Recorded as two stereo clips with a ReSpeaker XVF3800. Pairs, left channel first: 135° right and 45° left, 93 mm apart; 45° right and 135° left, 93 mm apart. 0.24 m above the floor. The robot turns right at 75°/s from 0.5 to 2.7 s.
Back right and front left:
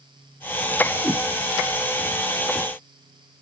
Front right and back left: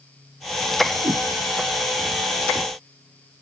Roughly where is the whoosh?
Behind left.